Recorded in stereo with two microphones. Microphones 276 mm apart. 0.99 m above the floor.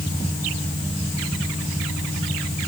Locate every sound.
Only background noise.